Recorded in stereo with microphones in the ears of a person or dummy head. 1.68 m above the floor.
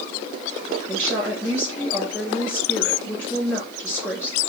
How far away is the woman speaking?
About 2.5 m.